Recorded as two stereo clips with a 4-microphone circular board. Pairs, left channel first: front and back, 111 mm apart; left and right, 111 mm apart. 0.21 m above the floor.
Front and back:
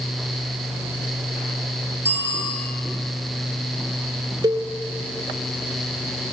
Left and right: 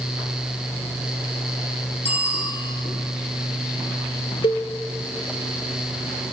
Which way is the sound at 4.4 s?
130° left.